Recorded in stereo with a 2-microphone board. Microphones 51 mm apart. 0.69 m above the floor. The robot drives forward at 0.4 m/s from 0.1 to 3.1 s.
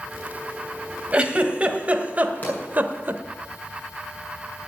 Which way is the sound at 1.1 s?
20° right (ahead or behind).